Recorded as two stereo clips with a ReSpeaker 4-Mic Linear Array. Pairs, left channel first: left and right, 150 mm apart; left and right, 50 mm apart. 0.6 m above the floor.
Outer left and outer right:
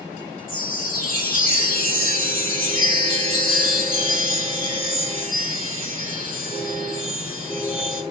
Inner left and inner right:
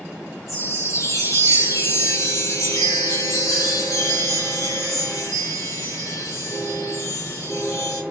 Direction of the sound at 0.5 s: 80° left.